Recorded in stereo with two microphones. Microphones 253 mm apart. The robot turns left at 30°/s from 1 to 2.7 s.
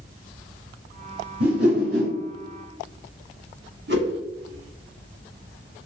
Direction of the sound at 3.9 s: 50° right (ahead or behind).